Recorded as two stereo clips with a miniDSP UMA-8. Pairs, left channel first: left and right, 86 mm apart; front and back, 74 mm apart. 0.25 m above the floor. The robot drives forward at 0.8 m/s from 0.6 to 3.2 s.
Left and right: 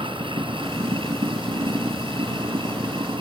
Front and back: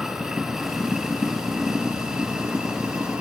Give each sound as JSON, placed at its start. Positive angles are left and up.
{"t": 0.0, "sound": "running water", "azimuth_deg": -95}